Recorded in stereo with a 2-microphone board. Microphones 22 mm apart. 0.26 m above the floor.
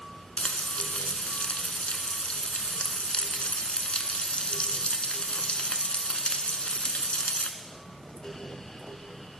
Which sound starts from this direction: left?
Frying, at 0.4 s.